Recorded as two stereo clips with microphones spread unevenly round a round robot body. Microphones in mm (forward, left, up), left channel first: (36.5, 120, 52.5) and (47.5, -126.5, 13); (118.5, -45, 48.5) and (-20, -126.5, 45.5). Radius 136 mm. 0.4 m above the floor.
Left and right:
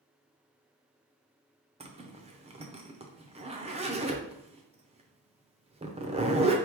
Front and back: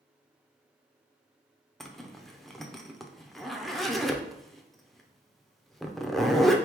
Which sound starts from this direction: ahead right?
A zipper, at 1.8 s.